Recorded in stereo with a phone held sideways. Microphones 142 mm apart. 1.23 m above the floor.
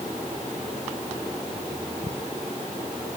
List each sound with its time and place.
Only background noise.